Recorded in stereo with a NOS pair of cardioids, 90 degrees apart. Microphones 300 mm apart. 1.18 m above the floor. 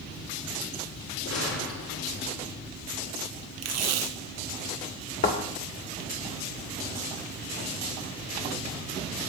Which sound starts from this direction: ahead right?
Tape being pulled, at 3.6 s.